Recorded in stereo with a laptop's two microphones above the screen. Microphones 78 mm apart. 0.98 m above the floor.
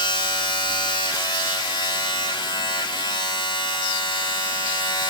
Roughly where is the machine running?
Left.